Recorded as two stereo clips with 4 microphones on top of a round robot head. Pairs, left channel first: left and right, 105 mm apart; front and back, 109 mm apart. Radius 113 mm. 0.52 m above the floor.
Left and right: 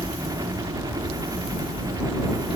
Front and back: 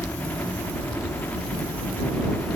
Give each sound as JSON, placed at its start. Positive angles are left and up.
{"t": 0.0, "sound": "a helicopter", "azimuth_deg": -65}